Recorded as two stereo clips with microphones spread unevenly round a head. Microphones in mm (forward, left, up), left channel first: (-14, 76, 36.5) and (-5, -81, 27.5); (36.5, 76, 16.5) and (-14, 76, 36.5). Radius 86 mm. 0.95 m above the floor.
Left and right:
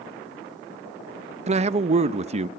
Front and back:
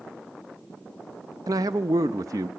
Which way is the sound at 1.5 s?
135° right.